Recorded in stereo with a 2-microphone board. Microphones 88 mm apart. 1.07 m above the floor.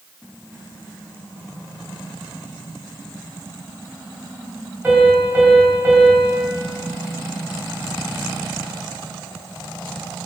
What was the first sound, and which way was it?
A piano, 20° right (ahead or behind).